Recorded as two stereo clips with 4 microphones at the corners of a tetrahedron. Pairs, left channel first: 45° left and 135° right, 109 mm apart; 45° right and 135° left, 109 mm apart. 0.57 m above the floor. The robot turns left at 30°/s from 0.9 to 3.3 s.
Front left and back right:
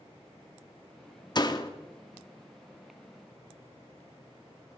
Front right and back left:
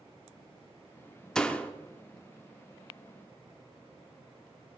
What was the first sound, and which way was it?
A door slam, 35° left.